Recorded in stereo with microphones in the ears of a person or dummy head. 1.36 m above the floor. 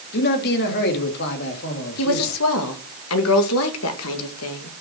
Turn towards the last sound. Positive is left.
turn(degrees=75)  # may be behind; listen again after turning